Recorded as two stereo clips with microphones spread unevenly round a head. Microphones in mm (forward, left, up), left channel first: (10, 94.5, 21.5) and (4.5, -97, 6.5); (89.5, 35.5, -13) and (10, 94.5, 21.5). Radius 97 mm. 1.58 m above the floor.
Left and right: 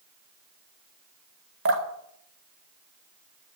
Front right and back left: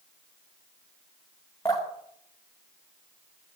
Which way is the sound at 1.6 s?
115° right.